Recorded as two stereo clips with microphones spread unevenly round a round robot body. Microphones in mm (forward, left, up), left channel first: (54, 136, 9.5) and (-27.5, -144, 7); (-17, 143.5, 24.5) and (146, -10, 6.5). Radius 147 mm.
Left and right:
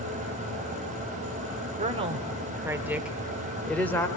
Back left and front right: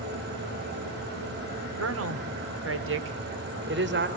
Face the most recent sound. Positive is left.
turn(degrees=-10)